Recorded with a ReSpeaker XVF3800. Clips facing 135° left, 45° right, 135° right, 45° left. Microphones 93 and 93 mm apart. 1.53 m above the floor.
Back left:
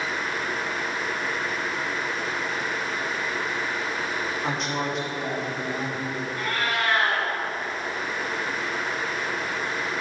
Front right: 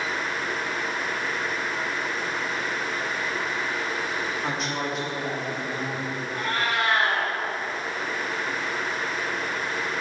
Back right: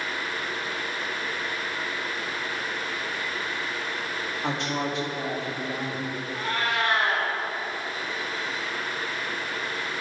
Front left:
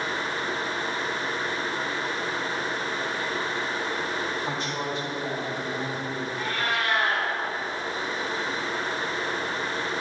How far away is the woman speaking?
About 3.5 m.